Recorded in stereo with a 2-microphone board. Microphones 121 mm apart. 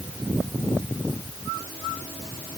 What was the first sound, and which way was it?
Only background noise.